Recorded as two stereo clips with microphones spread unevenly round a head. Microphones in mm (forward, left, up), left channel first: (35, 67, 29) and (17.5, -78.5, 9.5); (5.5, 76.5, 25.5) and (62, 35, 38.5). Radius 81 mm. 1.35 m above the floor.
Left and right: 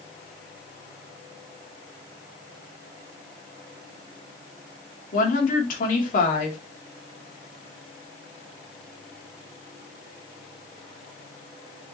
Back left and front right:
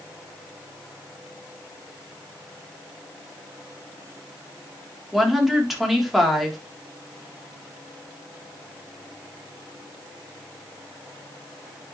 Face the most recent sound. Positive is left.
turn(degrees=50)